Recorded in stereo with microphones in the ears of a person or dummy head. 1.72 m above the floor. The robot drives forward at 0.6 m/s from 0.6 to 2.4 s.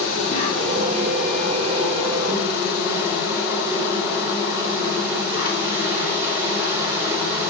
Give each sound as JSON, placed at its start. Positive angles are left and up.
{"t": 0.0, "sound": "an insect", "side_deg": -30, "distance_m": 1.8}